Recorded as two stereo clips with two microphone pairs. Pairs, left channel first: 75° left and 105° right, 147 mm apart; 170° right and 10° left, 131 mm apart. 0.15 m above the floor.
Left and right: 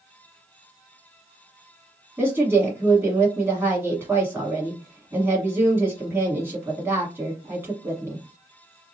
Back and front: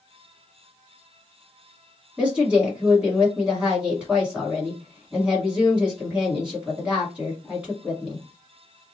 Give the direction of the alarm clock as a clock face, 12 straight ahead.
No alarm clock in this recording.